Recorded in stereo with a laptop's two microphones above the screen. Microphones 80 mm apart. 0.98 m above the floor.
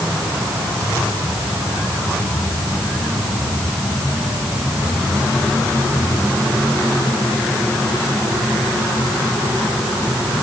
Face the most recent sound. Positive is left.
No sound to turn to.